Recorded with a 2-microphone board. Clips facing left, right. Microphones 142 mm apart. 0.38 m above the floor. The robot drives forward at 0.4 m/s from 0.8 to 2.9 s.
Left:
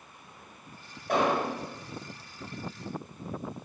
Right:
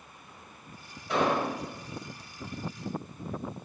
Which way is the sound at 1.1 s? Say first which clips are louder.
Left 1 dB; 55° left (ahead or behind).